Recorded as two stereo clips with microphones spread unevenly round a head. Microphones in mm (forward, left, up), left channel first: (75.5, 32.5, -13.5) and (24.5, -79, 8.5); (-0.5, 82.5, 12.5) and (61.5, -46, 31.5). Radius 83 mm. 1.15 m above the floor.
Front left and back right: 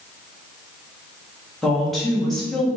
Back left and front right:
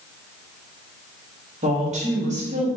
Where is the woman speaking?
20° right, 1.8 m.